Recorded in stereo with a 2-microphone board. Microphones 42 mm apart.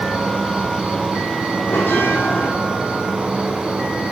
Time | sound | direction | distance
0.0 | an insect | 25° right (ahead or behind) | 3 m
1.7 | a bell | 55° left (ahead or behind) | 3.5 m